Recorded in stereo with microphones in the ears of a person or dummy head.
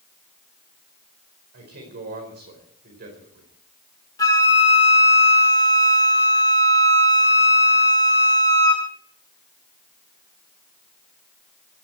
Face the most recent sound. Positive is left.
turn(degrees=15)  # may be behind; listen again after turning